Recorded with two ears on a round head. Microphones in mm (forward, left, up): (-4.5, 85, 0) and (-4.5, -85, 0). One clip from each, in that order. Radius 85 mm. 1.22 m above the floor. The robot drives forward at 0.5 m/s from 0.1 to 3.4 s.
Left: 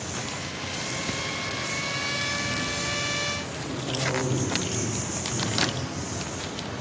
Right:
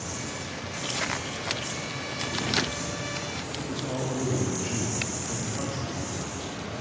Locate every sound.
0.0 s an insect: 60° right (ahead or behind), 2.0 m; by 6.8 s 35° right (ahead or behind), 3 m
3.6 s a man speaking: 60° right (ahead or behind), 0.7 m